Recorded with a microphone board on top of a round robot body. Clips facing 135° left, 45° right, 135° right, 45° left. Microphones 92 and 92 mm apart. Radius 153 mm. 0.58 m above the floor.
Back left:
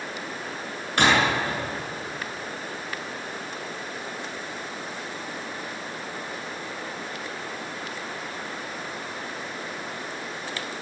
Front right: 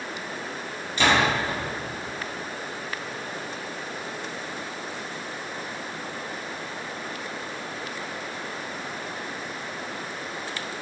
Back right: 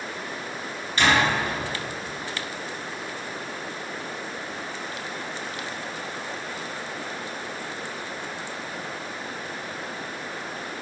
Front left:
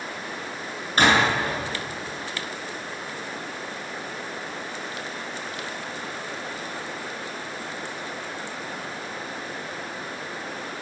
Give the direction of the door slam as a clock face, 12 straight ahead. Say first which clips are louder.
Back left 1 dB, front left 2 dB; 9 o'clock.